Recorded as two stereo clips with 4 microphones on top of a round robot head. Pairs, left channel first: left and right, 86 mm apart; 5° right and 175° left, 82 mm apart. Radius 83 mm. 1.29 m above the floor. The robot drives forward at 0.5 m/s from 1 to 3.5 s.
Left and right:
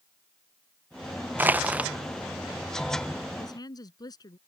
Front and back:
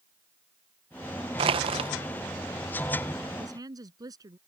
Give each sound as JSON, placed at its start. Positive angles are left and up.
{"t": 1.4, "sound": "crushing", "azimuth_deg": -160}
{"t": 3.4, "sound": "a woman speaking", "azimuth_deg": 135}